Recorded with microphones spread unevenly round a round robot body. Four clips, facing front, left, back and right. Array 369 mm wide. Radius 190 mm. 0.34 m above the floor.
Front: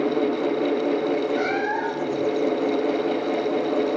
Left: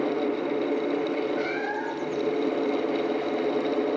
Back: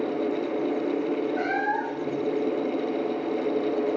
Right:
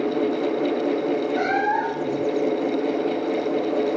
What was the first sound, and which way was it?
A cat meowing, 85° right.